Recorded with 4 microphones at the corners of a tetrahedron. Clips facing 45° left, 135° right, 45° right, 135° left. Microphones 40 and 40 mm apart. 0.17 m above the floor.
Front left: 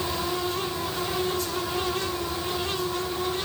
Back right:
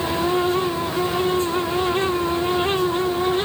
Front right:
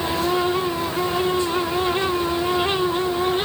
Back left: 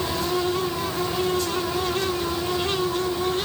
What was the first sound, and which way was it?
Only background noise.